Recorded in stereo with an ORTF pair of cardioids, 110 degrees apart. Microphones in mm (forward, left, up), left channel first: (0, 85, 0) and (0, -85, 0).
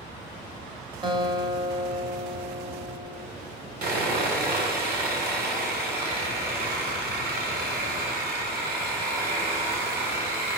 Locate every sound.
1.0 s a guitar: 25° right, 0.8 m
3.8 s sawing: 60° right, 1.5 m